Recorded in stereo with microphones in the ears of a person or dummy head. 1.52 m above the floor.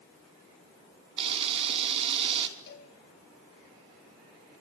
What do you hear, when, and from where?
1.2 s a camera shutter: 35° right (ahead or behind), 3 m
2.7 s a cowbell: 65° left (ahead or behind), 4.5 m